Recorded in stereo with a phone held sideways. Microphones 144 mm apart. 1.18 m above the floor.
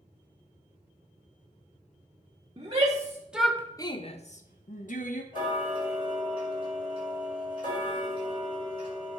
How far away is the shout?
About 1.2 m.